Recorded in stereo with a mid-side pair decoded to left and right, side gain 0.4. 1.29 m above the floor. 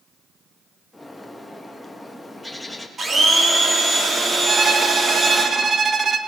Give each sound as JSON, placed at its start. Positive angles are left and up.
{"t": 0.9, "sound": "a bird", "azimuth_deg": 5, "distance_m": 1.5}
{"t": 3.0, "sound": "a blender", "azimuth_deg": -45, "distance_m": 2.5}
{"t": 4.5, "sound": "a violin", "azimuth_deg": -45, "distance_m": 0.9}